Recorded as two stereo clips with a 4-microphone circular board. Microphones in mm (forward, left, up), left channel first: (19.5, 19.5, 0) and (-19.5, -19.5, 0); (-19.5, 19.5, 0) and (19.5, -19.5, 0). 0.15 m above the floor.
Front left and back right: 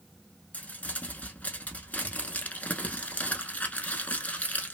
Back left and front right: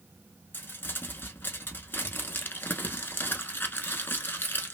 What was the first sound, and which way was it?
Crumpling, 100° left.